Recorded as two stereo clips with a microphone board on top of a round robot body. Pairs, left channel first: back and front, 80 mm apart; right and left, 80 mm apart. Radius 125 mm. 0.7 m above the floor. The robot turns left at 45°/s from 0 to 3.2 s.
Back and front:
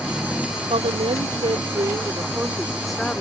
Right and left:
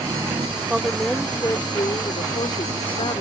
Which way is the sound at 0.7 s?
10° left.